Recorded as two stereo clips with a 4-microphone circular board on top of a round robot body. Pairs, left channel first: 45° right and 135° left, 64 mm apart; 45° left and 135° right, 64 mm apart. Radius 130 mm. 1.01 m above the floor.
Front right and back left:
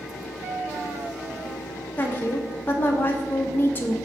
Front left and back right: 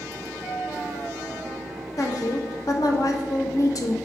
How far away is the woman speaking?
About 1.5 m.